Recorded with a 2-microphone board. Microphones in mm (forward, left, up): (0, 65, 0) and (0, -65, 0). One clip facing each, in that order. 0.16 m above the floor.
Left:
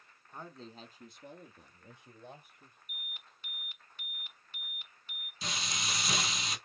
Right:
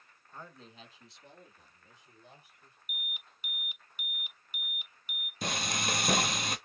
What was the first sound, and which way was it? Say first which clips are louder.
A man speaking: left 3 dB; 15° left (ahead or behind).